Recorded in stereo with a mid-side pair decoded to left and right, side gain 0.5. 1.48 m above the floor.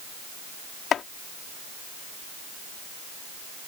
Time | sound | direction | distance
0.9 | chopping | 55° left | ?